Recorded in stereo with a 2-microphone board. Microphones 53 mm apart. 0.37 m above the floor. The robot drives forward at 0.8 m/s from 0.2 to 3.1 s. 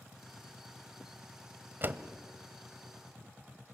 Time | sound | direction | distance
1.8 | a door slam | 40° right (ahead or behind) | 1.1 m